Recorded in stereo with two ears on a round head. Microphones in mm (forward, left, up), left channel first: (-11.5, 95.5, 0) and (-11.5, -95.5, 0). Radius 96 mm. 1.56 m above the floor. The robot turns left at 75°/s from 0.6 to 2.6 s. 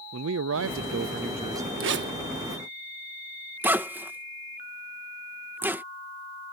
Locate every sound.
0.1 s a man speaking: 90° right; by 1.7 s 170° right
1.8 s a zipper: 70° right (ahead or behind); by 5.8 s 10° right (ahead or behind)